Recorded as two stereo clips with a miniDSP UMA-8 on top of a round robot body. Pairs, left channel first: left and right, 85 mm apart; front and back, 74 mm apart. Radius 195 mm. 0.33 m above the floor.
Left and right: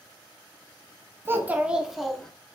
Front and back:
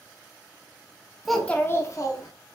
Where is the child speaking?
95° right, 0.7 m; by 2.3 s 5° left, 1.0 m.